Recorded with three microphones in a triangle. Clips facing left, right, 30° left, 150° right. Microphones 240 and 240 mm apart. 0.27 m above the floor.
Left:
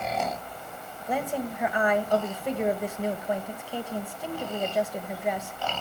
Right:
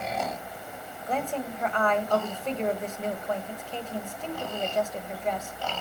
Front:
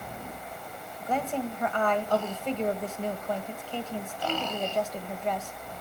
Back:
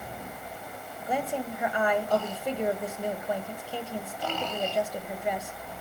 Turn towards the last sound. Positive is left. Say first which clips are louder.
# left 1 dB, front 1 dB
turn(degrees=150)